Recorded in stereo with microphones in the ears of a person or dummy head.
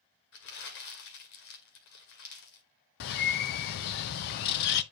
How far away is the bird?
About 0.7 m.